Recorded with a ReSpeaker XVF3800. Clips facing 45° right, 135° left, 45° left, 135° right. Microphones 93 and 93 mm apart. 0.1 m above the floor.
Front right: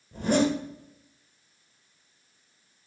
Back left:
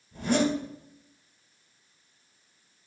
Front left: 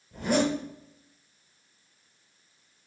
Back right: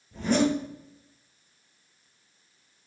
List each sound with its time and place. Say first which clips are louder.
0.1 s a zipper: front right 2 dB, back right 2 dB; 35° right, 2.5 m